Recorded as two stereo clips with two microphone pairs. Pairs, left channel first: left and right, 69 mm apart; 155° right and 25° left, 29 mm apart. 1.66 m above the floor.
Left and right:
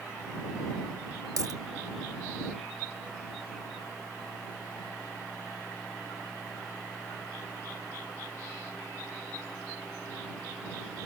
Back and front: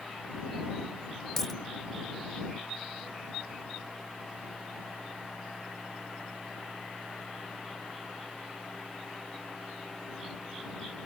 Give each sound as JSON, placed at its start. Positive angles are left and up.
{"t": 1.4, "sound": "a dropped coin", "azimuth_deg": -80}